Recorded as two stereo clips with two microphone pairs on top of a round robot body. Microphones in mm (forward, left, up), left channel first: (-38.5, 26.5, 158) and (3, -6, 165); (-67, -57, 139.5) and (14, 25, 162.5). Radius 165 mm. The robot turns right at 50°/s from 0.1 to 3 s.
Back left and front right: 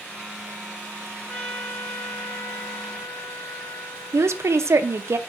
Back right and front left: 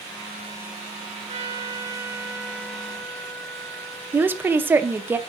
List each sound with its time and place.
1.3 s a trumpet: 70° left, 2.5 m; by 5.1 s 155° left, 2.5 m
4.1 s a woman speaking: 35° right, 0.7 m